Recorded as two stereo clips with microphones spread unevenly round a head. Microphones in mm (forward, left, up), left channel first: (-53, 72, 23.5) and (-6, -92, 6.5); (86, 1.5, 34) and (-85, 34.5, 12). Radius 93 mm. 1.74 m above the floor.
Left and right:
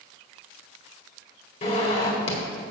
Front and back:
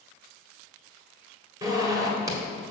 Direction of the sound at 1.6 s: 95° left.